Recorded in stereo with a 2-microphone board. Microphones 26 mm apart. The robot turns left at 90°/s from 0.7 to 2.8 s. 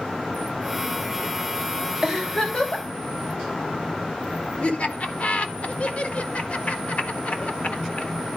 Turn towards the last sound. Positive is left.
turn(degrees=55)  # may be behind; listen again after turning